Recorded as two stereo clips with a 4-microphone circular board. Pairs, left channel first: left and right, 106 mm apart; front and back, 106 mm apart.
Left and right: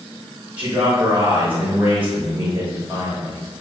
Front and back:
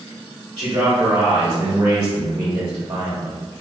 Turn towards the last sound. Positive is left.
turn(degrees=-140)